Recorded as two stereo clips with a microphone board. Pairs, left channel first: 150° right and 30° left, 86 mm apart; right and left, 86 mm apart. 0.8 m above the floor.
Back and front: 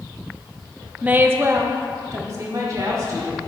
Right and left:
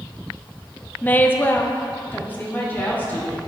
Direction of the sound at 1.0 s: 30° right.